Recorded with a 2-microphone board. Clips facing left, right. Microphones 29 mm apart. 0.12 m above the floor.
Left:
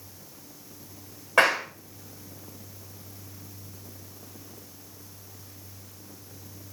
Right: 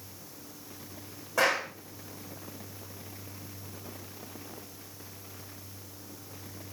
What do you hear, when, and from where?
1.4 s a clap: 60° left (ahead or behind), 7.5 m